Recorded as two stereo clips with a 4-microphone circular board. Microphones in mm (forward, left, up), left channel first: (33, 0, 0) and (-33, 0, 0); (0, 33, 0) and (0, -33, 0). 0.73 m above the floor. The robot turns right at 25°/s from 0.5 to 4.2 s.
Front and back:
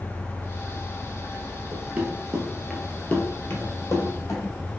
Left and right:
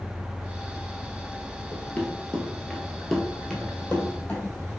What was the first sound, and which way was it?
Running footsteps, 130° left.